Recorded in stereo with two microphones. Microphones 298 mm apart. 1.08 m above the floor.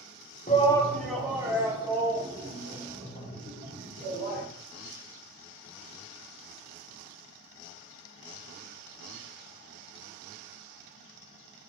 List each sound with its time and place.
0.5 s a shout: 25° left (ahead or behind), 0.5 m; by 4.4 s 25° right (ahead or behind), 3 m